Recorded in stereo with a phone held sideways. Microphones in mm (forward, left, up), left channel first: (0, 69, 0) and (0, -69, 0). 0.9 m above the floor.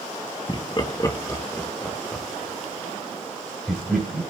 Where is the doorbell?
I don't hear a doorbell.